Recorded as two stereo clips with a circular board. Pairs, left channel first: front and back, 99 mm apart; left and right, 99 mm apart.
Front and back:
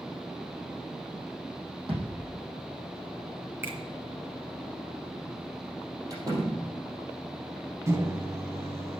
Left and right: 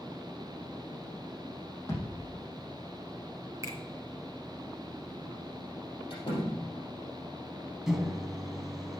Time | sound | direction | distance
1.9 | a thud | 155° left | 3.5 m
3.6 | a finger snap | 125° right | 1.8 m
6.1 | a door slam | 130° left | 3.5 m
7.9 | a microwave | 170° right | 0.9 m